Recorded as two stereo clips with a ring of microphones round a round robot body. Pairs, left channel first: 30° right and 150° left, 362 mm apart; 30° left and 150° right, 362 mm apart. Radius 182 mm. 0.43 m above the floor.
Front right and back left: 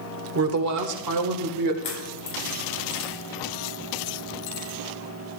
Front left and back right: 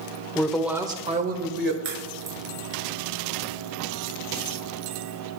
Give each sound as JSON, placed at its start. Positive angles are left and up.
{"t": 0.3, "sound": "a woman speaking", "azimuth_deg": 110, "distance_m": 1.2}
{"t": 1.8, "sound": "a crack", "azimuth_deg": -100, "distance_m": 6.0}